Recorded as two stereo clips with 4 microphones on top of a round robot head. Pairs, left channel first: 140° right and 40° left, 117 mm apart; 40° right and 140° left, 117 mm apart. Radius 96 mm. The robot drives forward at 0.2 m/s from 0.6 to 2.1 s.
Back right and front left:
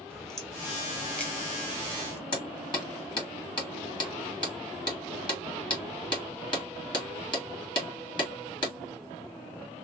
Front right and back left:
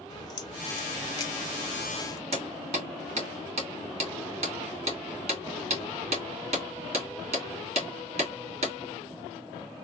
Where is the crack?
60° right, 1.2 m; by 2.2 s 85° right, 1.1 m.